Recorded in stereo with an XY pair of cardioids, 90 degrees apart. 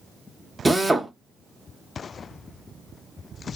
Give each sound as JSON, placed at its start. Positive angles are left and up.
{"t": 0.7, "sound": "a drill", "azimuth_deg": -15, "distance_m": 0.7}